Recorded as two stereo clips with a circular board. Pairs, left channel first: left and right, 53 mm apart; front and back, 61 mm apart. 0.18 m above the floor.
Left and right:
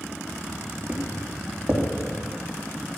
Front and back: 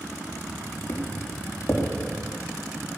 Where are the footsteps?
40° right, 5.5 m.